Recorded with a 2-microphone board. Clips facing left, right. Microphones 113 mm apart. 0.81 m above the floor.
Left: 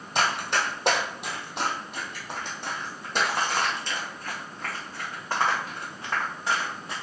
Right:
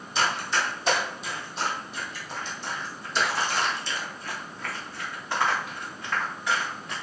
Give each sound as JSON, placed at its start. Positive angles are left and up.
{"t": 0.1, "sound": "running footsteps", "side_deg": 60, "distance_m": 1.7}